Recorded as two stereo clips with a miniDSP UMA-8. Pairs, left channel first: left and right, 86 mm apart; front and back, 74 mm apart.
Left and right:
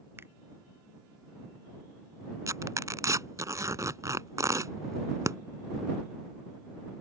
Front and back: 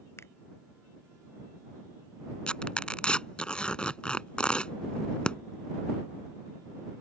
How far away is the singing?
No singing in this recording.